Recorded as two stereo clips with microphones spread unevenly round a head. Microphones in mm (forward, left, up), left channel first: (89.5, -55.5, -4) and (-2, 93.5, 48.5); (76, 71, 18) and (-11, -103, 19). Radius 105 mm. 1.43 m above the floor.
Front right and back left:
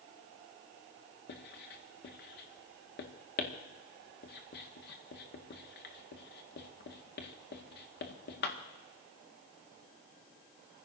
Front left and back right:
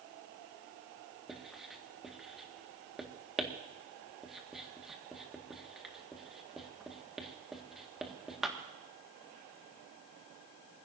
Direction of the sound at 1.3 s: 30° right.